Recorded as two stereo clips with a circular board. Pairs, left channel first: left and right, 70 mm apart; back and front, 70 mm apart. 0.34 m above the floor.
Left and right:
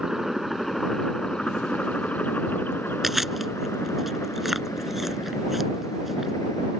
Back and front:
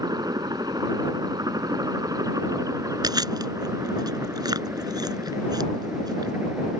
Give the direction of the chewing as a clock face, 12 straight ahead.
12 o'clock.